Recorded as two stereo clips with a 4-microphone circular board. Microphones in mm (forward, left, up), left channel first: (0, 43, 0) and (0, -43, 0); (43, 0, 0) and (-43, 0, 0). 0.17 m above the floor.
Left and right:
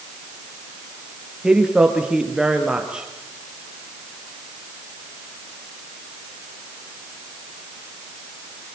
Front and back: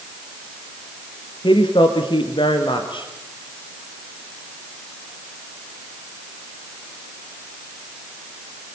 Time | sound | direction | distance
1.4 | a woman speaking | 10° right | 3.5 m